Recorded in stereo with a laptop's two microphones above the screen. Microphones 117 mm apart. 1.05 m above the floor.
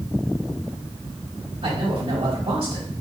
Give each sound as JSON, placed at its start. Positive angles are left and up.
{"t": 1.6, "sound": "a man speaking", "side_deg": -60, "distance_m": 2.5}